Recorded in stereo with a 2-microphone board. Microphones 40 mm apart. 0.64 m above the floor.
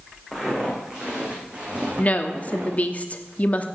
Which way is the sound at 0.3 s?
15° right (ahead or behind).